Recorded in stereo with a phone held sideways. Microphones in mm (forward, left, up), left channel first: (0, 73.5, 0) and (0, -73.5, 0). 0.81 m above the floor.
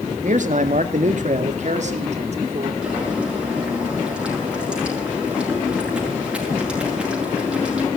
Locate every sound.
0.2 s a man speaking: 55° right (ahead or behind), 1.7 m; by 2.7 s 50° right (ahead or behind), 3 m
2.8 s boiling: 5° right (ahead or behind), 8 m